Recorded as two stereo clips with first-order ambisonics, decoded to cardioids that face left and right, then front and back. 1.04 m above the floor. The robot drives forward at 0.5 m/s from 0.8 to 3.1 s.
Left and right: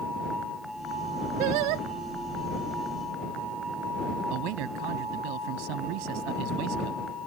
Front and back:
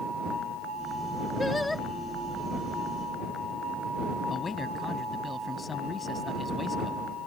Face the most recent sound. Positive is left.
turn(degrees=-75)